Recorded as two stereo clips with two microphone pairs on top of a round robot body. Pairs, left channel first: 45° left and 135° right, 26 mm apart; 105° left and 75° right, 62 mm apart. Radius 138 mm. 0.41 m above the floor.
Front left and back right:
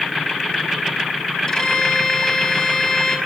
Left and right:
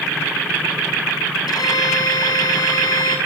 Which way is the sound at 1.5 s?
115° left.